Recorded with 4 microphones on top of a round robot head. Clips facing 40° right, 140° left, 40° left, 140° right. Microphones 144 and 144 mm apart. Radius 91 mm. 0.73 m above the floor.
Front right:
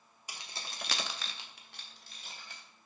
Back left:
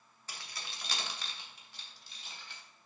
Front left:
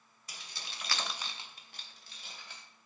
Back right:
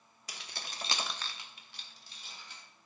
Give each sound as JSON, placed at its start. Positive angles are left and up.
{"t": 0.3, "sound": "keys jangling", "azimuth_deg": -120, "distance_m": 1.1}